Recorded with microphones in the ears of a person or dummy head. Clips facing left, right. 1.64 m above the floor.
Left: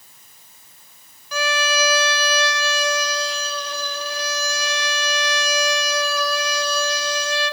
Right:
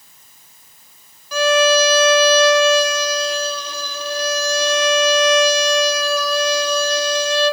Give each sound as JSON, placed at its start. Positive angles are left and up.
{"t": 1.3, "sound": "a violin", "side_deg": -85, "distance_m": 0.9}